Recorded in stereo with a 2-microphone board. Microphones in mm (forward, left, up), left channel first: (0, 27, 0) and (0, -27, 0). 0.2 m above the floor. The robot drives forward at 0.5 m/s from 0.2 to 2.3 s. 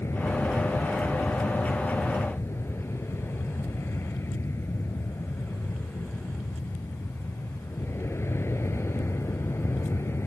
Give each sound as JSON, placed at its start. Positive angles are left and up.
{"t": 0.0, "sound": "an aircraft", "side_deg": 55}